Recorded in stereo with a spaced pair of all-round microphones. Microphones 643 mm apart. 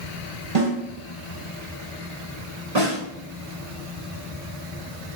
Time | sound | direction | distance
0.6 | a snare drum | 70° right (ahead or behind) | 2.5 m
2.8 | a snare drum | 75° right (ahead or behind) | 1.9 m